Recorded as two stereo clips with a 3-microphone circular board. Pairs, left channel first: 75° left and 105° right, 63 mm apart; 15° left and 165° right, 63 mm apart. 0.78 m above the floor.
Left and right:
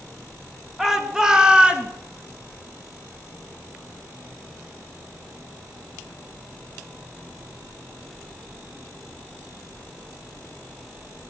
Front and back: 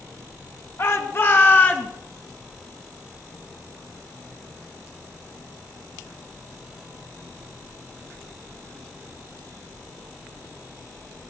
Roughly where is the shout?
Ahead right.